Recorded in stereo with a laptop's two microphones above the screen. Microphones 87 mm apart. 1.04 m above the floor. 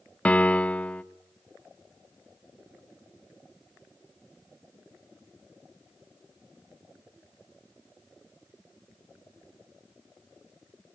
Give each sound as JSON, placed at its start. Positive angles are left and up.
{"t": 0.2, "sound": "a piano", "side_deg": 15, "distance_m": 0.7}